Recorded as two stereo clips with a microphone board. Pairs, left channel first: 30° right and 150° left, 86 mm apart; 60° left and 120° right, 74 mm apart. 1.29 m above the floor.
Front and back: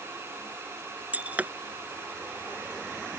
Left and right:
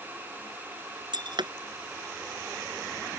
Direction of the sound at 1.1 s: 135° right.